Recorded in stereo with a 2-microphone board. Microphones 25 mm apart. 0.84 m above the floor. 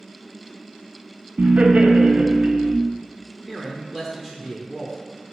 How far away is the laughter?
About 0.5 m.